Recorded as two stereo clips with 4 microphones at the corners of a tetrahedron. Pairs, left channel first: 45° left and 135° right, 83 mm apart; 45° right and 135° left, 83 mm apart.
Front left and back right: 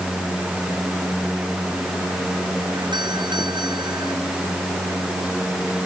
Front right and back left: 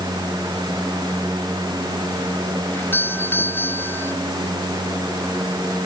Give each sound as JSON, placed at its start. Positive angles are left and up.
{"t": 2.7, "sound": "a doorbell", "azimuth_deg": -110}